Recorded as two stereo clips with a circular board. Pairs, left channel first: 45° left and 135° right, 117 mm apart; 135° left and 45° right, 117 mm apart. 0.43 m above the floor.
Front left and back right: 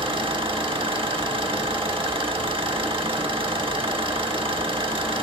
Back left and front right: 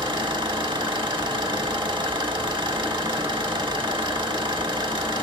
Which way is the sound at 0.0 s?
90° right.